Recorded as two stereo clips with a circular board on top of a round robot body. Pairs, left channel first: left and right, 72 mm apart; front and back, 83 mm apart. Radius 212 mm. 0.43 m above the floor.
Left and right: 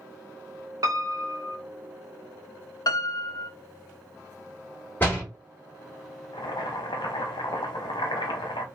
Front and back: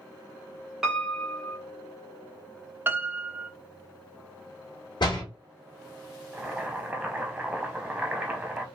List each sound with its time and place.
0.8 s a piano: 95° right, 1.3 m
2.9 s a piano: 115° left, 0.6 m
5.0 s a door slam: 25° left, 1.8 m
6.3 s boiling: 105° left, 0.6 m